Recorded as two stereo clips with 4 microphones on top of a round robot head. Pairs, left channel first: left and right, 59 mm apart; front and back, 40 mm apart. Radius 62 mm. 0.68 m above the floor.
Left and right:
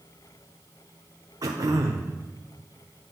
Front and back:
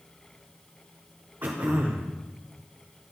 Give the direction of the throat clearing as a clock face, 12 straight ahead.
4 o'clock.